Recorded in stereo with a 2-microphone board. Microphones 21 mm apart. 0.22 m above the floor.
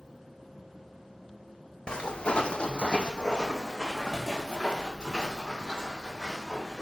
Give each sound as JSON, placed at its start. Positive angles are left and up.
{"t": 1.9, "sound": "footsteps", "side_deg": 55, "distance_m": 0.7}